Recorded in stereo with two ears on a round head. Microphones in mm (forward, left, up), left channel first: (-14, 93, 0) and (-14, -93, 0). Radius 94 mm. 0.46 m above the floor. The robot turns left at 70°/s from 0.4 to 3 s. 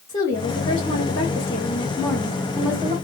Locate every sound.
0.1 s a woman speaking: 15° left (ahead or behind), 1.2 m; by 3.0 s 15° right (ahead or behind), 1.2 m